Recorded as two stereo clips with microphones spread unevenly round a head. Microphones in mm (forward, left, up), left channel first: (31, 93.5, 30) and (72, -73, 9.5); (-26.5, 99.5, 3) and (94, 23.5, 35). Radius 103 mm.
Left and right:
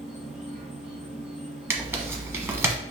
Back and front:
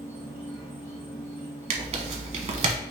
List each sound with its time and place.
0.0 s an insect: 155° left, 2.5 m
1.7 s tearing paper: straight ahead, 1.2 m